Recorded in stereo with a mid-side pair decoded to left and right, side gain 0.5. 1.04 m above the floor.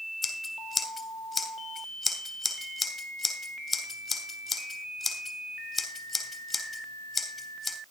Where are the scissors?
15° left, 3.5 m.